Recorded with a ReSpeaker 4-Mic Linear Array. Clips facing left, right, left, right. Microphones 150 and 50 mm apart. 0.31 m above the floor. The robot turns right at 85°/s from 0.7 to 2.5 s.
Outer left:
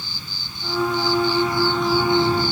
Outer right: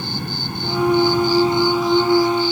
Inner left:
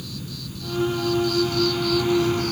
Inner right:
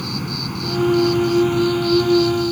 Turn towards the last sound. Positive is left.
turn(degrees=55)